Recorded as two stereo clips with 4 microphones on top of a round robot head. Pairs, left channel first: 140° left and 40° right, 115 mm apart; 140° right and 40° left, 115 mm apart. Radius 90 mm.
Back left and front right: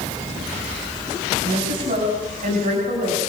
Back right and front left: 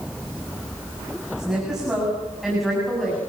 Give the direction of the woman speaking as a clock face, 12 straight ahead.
1 o'clock.